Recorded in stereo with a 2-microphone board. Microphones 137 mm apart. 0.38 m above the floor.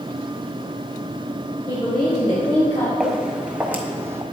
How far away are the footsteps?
About 1.3 m.